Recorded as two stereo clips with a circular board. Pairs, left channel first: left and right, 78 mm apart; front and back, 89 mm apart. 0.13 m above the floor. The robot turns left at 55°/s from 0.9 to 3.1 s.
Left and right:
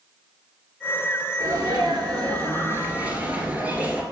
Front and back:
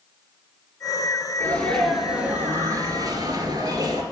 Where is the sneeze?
60° right, 2 m; by 4.0 s 155° right, 2 m.